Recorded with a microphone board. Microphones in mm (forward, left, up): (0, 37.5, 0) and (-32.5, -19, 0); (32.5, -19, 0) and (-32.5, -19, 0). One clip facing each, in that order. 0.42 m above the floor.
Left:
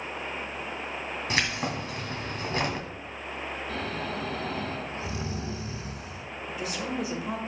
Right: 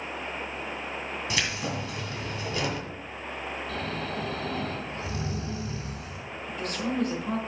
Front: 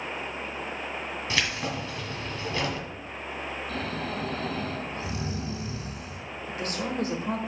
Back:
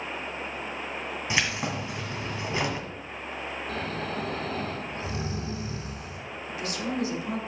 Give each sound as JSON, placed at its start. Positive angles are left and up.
{"t": 1.3, "sound": "keys jangling", "azimuth_deg": 110, "distance_m": 1.9}
{"t": 3.7, "sound": "snoring", "azimuth_deg": 125, "distance_m": 3.5}
{"t": 6.5, "sound": "a woman speaking", "azimuth_deg": -20, "distance_m": 1.5}